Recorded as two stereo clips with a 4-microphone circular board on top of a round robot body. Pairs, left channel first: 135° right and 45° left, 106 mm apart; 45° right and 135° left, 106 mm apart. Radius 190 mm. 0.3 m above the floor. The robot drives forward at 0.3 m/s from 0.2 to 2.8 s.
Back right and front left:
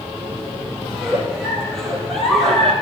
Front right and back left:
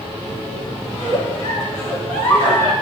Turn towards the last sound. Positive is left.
turn(degrees=140)